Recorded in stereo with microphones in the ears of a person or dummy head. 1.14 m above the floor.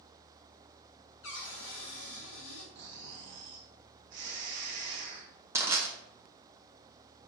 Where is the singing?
I don't hear singing.